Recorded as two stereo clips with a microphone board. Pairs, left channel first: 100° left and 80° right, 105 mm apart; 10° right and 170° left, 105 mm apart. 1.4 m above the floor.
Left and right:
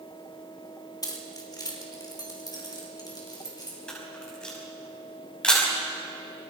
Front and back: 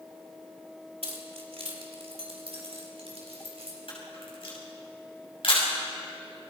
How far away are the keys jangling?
About 2.5 m.